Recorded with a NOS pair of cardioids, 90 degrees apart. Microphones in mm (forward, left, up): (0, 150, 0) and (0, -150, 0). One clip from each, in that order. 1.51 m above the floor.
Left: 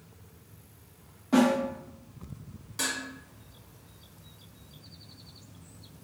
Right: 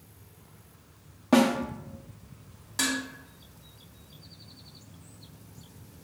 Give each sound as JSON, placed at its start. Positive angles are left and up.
{"t": 1.3, "sound": "a snare drum", "azimuth_deg": -50, "distance_m": 0.9}
{"t": 2.8, "sound": "dishes clattering", "azimuth_deg": -35, "distance_m": 1.5}